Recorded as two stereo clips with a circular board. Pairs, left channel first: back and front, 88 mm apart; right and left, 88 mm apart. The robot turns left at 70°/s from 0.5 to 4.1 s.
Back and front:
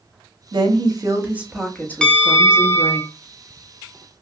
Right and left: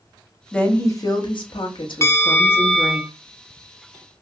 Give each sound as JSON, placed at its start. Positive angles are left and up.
{"t": 0.5, "sound": "a woman speaking", "azimuth_deg": -10, "distance_m": 0.9}
{"t": 2.0, "sound": "a bell", "azimuth_deg": -105, "distance_m": 0.5}